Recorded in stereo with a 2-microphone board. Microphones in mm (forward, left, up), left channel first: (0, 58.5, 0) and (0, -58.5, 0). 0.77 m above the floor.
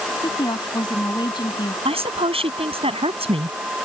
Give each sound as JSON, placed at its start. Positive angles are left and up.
{"t": 0.2, "sound": "a woman speaking", "side_deg": 40}
{"t": 1.9, "sound": "a woman speaking", "side_deg": -55}